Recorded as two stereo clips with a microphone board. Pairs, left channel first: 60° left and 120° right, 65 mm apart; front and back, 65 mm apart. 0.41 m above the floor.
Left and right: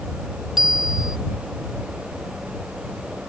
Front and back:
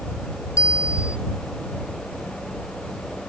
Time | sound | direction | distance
0.6 | a bicycle bell | 35° right | ?